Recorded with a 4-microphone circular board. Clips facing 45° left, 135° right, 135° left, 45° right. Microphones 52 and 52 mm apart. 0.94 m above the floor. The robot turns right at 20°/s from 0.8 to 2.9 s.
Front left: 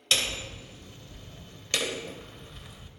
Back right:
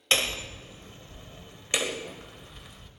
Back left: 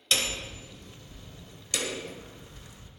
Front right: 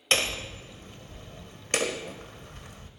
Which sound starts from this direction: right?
Hammering, at 0.1 s.